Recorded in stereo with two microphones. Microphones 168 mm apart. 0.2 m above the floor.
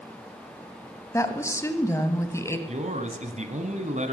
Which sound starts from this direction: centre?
A woman speaking, at 1.1 s.